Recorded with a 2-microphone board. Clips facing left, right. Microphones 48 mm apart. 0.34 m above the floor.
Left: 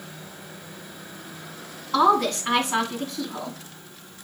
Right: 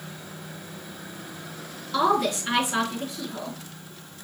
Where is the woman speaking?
45° left (ahead or behind), 2.5 m.